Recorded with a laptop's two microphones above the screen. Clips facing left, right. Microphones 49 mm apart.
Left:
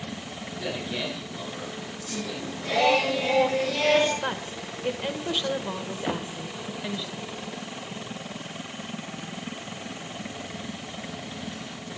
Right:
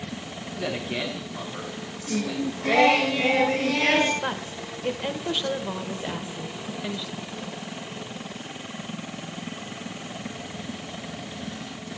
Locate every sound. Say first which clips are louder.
0.5 s a man speaking: right 3 dB; 40° right (ahead or behind), 9.5 m
2.1 s singing: right 7 dB; 65° right (ahead or behind), 7.5 m
4.2 s a woman speaking: right 1 dB; 5° right (ahead or behind), 1.0 m
6.1 s knocking: left 3 dB; 65° left (ahead or behind), 0.7 m